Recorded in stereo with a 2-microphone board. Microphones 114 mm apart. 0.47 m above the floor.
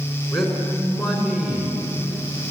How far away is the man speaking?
About 5.5 m.